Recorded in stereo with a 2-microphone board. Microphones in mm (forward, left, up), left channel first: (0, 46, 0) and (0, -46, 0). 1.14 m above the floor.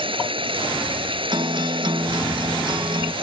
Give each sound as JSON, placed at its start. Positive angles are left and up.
{"t": 0.0, "sound": "running water", "side_deg": -70}
{"t": 1.3, "sound": "a guitar", "side_deg": -55}